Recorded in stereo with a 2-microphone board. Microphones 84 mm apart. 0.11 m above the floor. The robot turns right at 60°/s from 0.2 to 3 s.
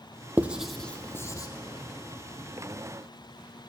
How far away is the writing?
About 0.6 m.